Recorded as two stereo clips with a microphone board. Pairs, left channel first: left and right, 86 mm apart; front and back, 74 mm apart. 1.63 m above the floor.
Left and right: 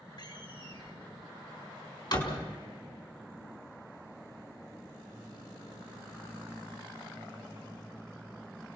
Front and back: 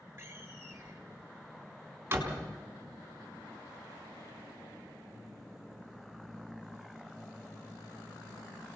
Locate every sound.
0.2 s a door slam: 120° left, 3.5 m